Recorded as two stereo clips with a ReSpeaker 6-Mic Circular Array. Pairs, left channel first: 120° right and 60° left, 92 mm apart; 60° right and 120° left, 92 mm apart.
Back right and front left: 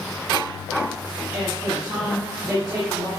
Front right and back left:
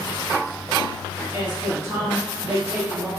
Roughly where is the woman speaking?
Behind left.